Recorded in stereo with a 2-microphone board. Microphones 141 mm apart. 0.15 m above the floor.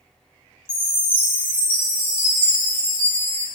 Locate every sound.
0.7 s a chime: 40° right (ahead or behind), 1.3 m